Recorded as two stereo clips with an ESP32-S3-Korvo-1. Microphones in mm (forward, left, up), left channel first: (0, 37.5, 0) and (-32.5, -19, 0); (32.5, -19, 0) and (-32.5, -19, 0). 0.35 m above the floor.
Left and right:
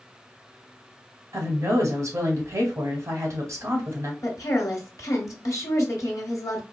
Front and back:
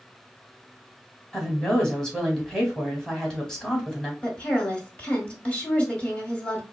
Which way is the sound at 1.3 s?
85° right.